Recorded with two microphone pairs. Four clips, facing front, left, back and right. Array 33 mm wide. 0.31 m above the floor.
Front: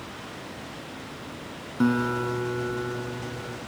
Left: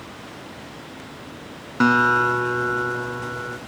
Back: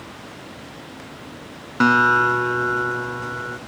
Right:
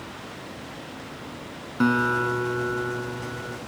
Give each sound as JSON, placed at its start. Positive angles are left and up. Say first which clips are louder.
{"t": 1.8, "sound": "a guitar", "louder": "left 5 dB, back 9 dB", "azimuth_deg": 150, "distance_m": 0.7}